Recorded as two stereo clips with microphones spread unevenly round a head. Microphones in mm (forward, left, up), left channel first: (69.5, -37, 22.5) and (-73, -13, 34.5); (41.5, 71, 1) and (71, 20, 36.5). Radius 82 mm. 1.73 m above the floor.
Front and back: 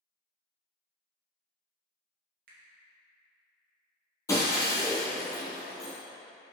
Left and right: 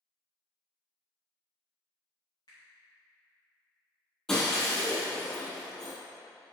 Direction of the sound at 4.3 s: 65° right.